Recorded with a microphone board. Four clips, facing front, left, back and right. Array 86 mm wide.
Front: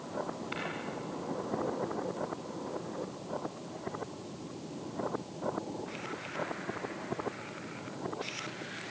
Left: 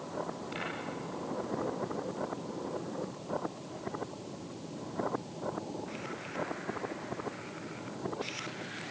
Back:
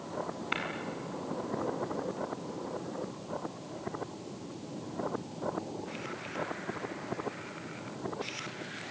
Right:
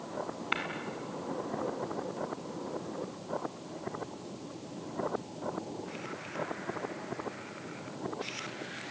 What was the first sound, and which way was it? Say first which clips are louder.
Tapping: right 9 dB, back 7 dB; 120° right.